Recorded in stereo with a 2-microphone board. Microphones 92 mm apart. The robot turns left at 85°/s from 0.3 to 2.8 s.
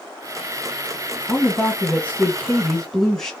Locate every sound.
1.3 s a woman speaking: 10° left (ahead or behind), 1.3 m; by 3.3 s 5° left (ahead or behind), 1.3 m